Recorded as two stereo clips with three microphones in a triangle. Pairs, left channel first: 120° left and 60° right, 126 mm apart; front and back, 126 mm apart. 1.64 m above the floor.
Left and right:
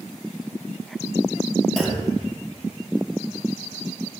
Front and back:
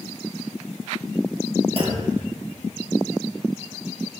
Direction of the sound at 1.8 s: 155° right.